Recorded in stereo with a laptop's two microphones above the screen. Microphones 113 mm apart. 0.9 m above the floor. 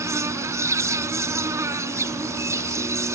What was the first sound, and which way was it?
An insect, 25° right (ahead or behind).